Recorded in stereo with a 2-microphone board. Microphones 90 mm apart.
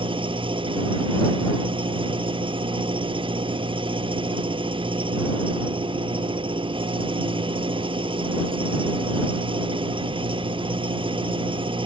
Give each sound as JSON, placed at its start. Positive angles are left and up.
{"t": 0.0, "sound": "an engine running", "side_deg": -75}